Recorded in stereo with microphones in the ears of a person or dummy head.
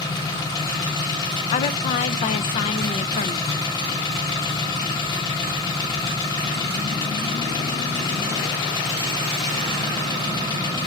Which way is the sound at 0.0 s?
20° left (ahead or behind).